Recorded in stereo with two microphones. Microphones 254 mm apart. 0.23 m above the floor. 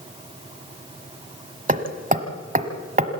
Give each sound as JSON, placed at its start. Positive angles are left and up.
{"t": 1.7, "sound": "hammering", "side_deg": -30, "distance_m": 1.2}